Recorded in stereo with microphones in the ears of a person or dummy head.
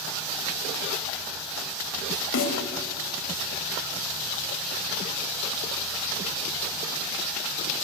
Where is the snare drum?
60° left (ahead or behind), 3.5 m.